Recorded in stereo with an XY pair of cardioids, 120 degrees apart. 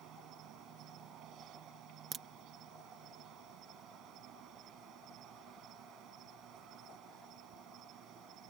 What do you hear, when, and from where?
0.0 s an insect: 70° right
2.1 s a crack: 40° right